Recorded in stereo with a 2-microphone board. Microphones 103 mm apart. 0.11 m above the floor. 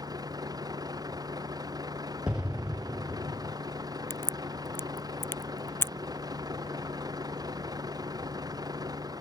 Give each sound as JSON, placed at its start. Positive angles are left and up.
{"t": 0.0, "sound": "a vehicle", "side_deg": -35}
{"t": 2.3, "sound": "an explosion", "side_deg": -10}
{"t": 4.1, "sound": "a crack", "side_deg": 20}